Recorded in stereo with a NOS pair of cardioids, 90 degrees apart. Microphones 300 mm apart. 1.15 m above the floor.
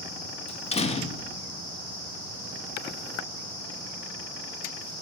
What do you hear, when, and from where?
0.5 s a door slam: 20° left, 0.8 m